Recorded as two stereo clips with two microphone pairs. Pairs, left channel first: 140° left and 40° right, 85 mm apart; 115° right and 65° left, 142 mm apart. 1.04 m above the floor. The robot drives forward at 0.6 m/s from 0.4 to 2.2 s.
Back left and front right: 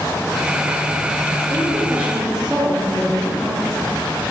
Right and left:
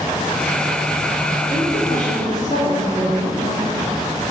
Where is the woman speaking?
90° right, 0.8 m; by 3.9 s 120° right, 0.9 m.